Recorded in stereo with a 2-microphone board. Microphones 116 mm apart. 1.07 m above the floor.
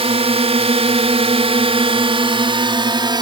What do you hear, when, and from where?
0.0 s a drone: 60° right (ahead or behind); by 3.2 s 40° right (ahead or behind)